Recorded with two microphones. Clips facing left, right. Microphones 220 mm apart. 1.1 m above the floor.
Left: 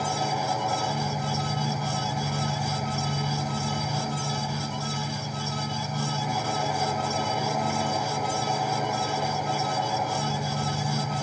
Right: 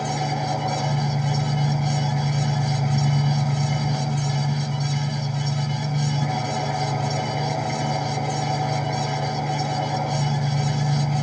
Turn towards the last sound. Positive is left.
turn(degrees=-75)  # may be behind; listen again after turning